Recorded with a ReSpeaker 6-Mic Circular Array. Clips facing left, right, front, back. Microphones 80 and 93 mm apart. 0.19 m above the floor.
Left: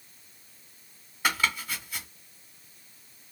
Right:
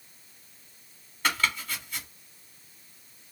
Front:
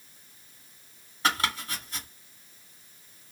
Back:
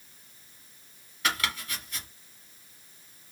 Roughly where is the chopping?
Ahead.